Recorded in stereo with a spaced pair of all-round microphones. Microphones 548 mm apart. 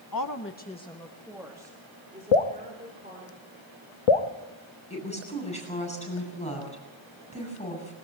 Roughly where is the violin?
No violin in this recording.